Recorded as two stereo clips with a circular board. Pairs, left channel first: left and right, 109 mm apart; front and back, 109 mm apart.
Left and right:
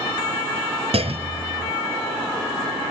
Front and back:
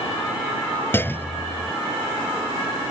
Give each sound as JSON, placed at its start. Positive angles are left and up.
{"t": 0.9, "sound": "a clunk", "azimuth_deg": -70}